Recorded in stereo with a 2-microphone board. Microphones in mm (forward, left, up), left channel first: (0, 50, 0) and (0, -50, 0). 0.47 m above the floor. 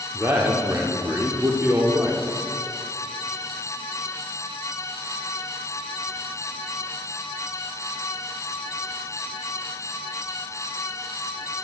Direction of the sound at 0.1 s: 25° right (ahead or behind).